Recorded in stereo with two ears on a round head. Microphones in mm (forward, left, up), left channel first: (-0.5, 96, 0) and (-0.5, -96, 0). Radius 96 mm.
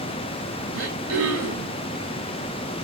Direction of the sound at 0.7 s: 70° right (ahead or behind).